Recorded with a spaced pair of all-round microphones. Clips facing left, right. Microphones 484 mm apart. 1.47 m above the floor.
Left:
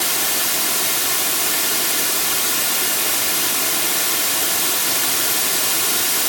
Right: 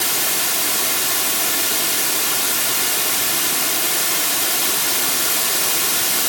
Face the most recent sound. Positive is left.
No sound to turn to.